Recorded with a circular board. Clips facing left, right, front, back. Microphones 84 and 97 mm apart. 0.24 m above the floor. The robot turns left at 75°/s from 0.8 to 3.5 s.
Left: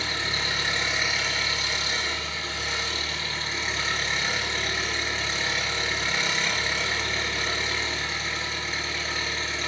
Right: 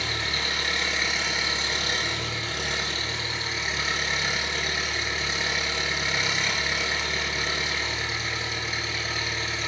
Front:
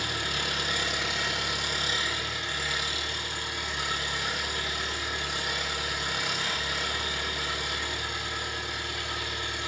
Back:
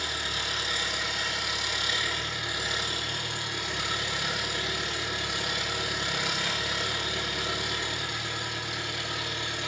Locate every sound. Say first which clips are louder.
0.0 s an engine running: even, front 2 dB; 25° left, 2 m; by 9.7 s straight behind, 2 m